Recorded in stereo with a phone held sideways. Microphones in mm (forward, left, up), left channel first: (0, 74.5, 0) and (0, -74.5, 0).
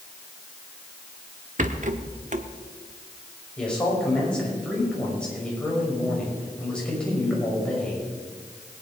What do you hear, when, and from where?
1.6 s a rattle: 55° right (ahead or behind), 1.0 m
3.6 s a man speaking: 5° left (ahead or behind), 5.5 m